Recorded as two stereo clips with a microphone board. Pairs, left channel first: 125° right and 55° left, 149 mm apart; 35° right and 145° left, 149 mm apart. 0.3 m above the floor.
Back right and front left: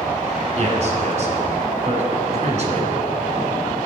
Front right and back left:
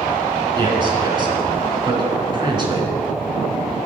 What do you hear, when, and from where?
0.6 s a man speaking: 90° left, 2.5 m